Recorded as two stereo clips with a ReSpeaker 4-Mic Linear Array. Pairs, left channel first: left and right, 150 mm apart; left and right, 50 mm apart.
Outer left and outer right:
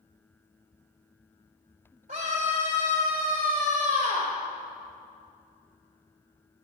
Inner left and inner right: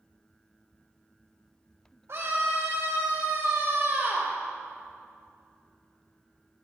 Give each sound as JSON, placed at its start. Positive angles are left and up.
{"t": 2.1, "sound": "a scream", "side_deg": -70, "distance_m": 3.0}